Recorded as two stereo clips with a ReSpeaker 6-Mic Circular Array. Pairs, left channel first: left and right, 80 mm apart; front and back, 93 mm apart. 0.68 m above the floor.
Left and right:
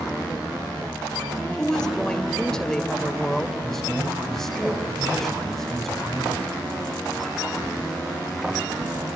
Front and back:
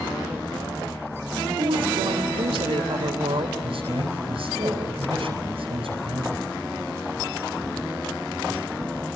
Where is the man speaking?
Straight behind, 4.5 m.